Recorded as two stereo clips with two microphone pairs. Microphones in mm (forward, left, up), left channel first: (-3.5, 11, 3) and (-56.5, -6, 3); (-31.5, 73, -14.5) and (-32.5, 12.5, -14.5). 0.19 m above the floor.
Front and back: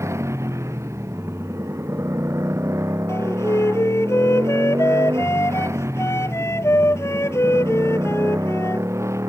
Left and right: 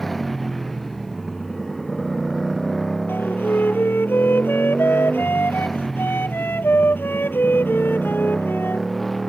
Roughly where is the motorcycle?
Behind.